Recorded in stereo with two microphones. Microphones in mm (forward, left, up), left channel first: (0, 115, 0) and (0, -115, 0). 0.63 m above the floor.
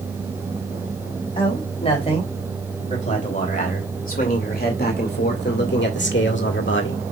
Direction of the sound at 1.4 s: 25° left (ahead or behind).